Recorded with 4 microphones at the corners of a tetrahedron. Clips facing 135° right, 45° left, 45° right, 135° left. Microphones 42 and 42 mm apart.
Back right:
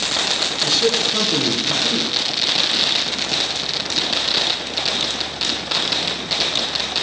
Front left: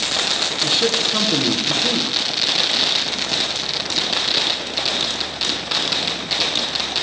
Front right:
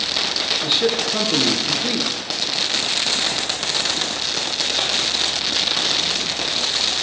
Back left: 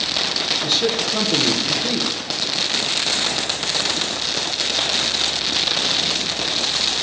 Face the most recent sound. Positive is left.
turn(degrees=0)